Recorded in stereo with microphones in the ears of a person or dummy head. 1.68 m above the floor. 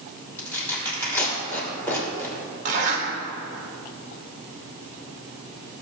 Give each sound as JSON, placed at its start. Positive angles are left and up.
{"t": 0.4, "sound": "tearing paper", "side_deg": 15, "distance_m": 2.5}
{"t": 2.6, "sound": "a zipper", "side_deg": -45, "distance_m": 1.8}